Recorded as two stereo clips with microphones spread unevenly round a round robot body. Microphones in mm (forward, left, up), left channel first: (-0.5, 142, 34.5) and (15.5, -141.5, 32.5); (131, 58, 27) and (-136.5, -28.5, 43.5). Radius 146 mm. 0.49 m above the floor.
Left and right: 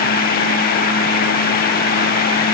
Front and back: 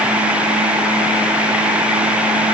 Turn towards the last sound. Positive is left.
No sound to turn to.